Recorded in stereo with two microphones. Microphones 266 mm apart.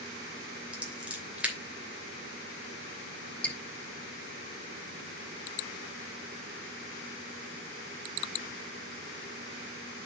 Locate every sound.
0.7 s scissors: 5° right (ahead or behind), 2.5 m
3.4 s dripping: 5° left (ahead or behind), 1.6 m